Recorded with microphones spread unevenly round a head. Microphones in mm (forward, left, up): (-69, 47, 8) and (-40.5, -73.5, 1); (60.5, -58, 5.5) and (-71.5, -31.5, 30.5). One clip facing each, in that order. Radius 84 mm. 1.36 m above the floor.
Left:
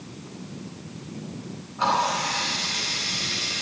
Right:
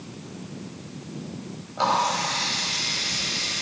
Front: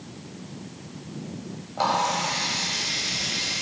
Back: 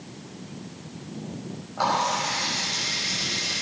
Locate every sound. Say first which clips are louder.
1.8 s a running tap: right 1 dB, front 1 dB; 75° right, 5.5 m